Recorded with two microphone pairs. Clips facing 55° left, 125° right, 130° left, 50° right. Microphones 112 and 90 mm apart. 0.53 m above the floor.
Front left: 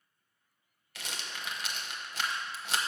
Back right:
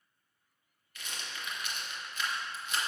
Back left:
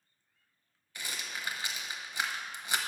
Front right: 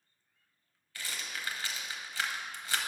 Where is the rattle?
60° left, 0.8 m.